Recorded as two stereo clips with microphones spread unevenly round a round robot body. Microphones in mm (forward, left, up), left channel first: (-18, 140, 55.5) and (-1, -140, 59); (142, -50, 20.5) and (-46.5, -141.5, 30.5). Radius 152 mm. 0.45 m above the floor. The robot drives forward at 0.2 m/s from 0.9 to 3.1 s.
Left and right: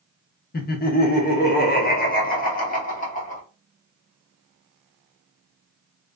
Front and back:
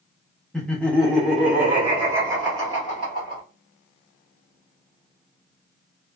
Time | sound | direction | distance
0.5 | laughter | 105° left | 0.8 m